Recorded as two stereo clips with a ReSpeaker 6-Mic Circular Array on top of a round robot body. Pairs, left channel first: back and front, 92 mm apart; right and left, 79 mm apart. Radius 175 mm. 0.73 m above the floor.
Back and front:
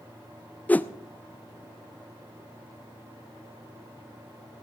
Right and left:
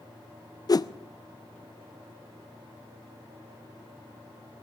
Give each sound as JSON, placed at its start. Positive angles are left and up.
{"t": 0.7, "sound": "a whoosh", "azimuth_deg": -110, "distance_m": 0.6}